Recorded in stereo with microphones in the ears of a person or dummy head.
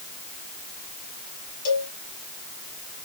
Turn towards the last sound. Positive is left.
turn(degrees=65)  # may be behind; listen again after turning